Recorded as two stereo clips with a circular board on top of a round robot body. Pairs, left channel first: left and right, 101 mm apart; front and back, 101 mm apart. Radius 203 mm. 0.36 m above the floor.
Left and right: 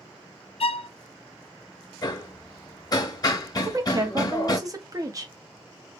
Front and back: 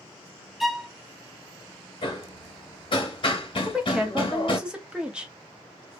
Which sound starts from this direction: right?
A woman speaking, at 3.6 s.